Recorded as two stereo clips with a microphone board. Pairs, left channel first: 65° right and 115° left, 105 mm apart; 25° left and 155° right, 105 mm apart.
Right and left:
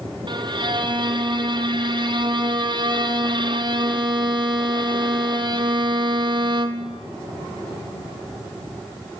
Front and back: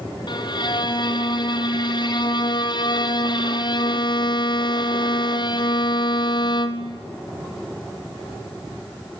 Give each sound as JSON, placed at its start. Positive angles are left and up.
{"t": 0.3, "sound": "a violin", "azimuth_deg": 65, "distance_m": 1.0}